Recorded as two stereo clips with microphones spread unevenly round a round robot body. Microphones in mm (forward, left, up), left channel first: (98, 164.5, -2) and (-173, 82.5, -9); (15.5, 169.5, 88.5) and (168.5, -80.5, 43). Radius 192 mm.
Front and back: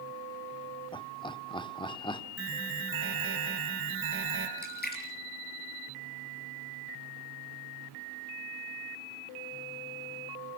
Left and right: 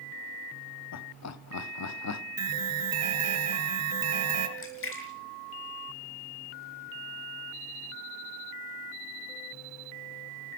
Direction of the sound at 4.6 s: 75° left.